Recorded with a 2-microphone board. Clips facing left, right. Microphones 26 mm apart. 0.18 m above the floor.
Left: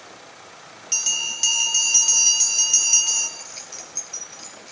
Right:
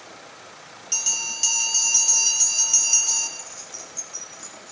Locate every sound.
0.9 s a bell: 20° left (ahead or behind), 5 m
3.4 s keys jangling: 65° left (ahead or behind), 2.5 m